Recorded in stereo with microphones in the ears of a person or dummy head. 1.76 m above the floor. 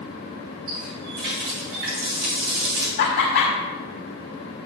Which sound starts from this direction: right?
A running tap, at 0.7 s.